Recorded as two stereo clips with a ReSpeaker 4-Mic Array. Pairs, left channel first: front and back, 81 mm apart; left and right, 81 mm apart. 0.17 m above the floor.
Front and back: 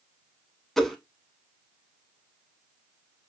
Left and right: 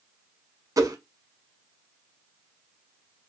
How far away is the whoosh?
About 0.7 m.